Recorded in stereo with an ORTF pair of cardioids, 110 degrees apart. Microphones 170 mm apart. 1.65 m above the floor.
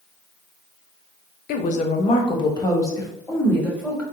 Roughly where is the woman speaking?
Ahead left.